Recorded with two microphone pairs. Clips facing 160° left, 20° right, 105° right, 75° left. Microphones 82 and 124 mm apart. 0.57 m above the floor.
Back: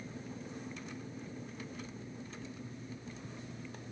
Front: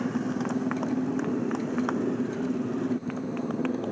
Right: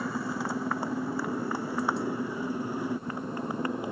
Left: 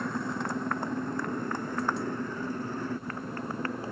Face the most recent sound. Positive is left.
turn(degrees=-30)